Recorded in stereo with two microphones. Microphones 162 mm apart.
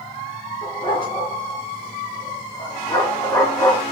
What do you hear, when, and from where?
0.6 s a dog barking: 35° left (ahead or behind), 4.5 m; by 3.8 s 15° left (ahead or behind), 2.5 m